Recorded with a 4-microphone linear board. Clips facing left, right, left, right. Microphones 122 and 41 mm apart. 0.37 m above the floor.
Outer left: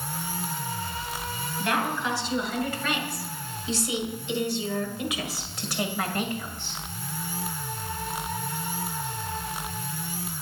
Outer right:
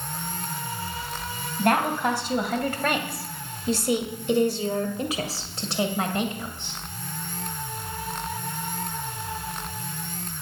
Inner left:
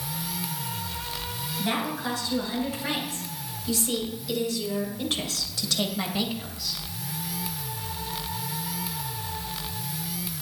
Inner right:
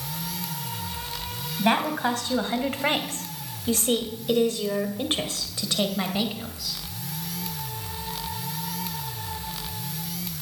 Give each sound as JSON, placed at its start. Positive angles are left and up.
{"t": 1.6, "sound": "a woman speaking", "side_deg": -50, "distance_m": 2.5}